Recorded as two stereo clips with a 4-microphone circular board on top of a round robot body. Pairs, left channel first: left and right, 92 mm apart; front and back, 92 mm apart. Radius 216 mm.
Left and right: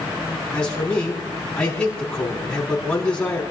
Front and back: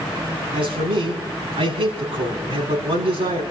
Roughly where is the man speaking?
Behind.